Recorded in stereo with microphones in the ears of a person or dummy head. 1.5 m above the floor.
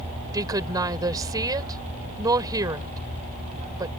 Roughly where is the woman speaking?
Right.